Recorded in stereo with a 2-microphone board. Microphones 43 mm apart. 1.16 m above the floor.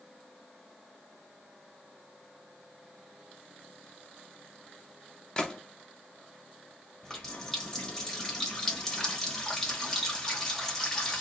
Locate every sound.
5.4 s a gunshot: 15° left (ahead or behind), 0.6 m
7.0 s a running tap: 15° left (ahead or behind), 0.9 m